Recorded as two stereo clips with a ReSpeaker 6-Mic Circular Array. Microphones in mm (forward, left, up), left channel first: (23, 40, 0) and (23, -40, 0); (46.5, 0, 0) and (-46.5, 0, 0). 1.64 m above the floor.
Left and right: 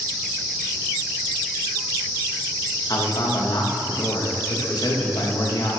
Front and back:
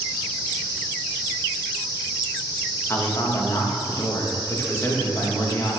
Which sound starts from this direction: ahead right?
An insect, at 0.0 s.